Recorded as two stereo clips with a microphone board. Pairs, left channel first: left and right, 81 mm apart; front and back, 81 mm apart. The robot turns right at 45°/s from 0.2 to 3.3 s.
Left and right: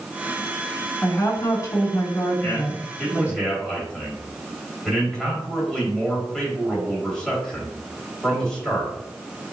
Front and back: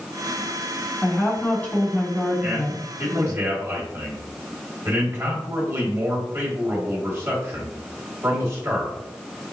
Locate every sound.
1.0 s a woman speaking: 40° left, 2.5 m; by 3.4 s 145° left, 2.5 m
2.4 s a man speaking: 125° left, 1.7 m; by 9.5 s 165° left, 1.7 m